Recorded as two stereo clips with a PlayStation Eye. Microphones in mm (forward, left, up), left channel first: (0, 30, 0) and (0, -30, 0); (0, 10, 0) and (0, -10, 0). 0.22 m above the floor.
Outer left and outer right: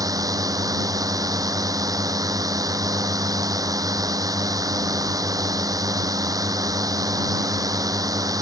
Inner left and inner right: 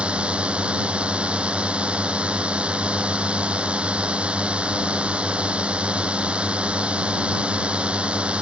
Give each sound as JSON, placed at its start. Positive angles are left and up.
{"t": 0.0, "sound": "a drone", "side_deg": -80}